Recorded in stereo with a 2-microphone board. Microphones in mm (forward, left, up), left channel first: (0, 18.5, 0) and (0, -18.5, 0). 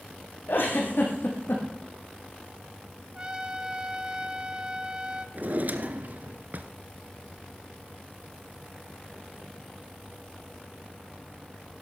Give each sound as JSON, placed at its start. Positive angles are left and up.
{"t": 0.5, "sound": "a giggle", "side_deg": 65, "distance_m": 5.0}
{"t": 3.1, "sound": "a trumpet", "side_deg": -25, "distance_m": 1.3}
{"t": 5.3, "sound": "a drawer", "side_deg": -50, "distance_m": 1.4}